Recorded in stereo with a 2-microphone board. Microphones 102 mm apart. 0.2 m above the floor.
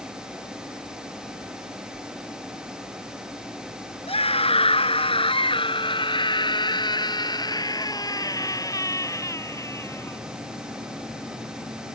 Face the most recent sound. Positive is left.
turn(degrees=25)  # may be behind; listen again after turning